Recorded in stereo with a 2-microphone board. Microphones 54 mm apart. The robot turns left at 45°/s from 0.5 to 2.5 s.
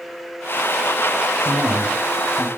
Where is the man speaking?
50° right (ahead or behind), 3.5 m; by 2.5 s 5° right (ahead or behind), 3.5 m.